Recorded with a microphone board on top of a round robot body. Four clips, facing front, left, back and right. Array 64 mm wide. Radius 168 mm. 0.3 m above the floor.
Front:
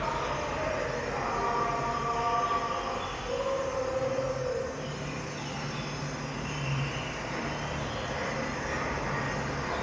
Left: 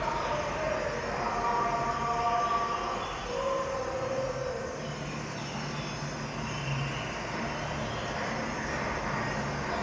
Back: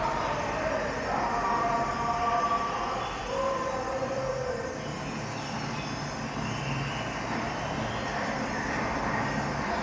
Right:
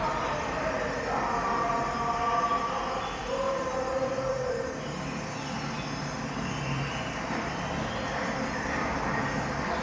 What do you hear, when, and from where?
0.0 s an insect: 150° right, 1.1 m